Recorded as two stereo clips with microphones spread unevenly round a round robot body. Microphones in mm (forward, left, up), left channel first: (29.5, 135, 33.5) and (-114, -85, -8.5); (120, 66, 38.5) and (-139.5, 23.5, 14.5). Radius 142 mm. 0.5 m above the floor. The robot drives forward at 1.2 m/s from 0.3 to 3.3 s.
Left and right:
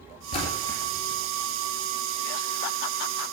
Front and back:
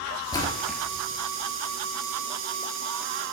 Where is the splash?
85° left, 1.6 m; by 0.8 s 105° left, 1.7 m.